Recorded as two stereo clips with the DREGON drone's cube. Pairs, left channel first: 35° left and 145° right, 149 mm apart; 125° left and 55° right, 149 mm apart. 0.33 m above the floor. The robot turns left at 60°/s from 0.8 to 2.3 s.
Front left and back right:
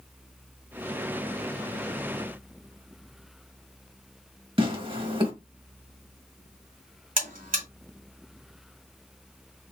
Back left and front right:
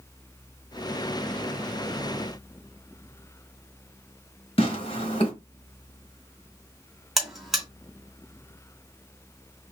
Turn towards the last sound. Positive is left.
turn(degrees=-145)